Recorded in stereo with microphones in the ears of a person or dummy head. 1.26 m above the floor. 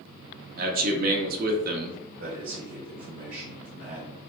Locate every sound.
0.6 s a man speaking: 45° right (ahead or behind), 0.7 m
2.2 s a man speaking: 60° right (ahead or behind), 1.5 m